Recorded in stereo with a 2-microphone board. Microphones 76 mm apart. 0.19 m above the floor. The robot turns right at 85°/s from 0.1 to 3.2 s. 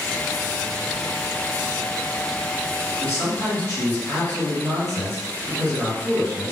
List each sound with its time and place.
3.0 s a man speaking: 20° left (ahead or behind), 1.9 m; by 6.5 s 35° left (ahead or behind), 1.9 m